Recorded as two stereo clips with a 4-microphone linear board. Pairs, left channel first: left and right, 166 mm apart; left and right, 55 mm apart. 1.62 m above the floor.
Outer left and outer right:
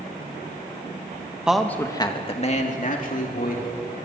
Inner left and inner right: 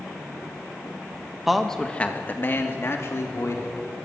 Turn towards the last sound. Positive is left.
turn(degrees=65)  # may be behind; listen again after turning